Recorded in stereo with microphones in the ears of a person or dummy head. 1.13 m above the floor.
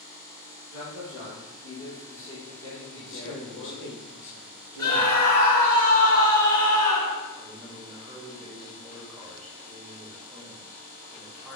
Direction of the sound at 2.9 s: 60° left (ahead or behind).